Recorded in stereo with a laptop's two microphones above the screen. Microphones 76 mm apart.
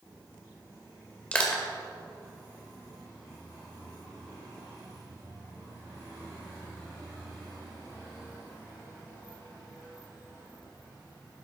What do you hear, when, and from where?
1.3 s crushing: 15° left (ahead or behind), 1.6 m